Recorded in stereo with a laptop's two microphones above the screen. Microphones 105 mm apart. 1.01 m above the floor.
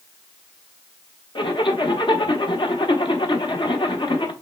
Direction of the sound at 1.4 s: 50° left (ahead or behind).